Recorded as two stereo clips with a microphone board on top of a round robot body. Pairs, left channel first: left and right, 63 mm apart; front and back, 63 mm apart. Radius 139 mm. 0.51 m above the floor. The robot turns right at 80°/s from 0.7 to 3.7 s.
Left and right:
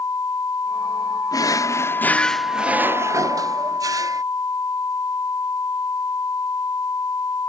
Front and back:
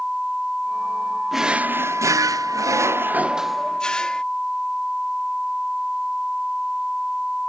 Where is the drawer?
90° left; by 4.2 s 75° right.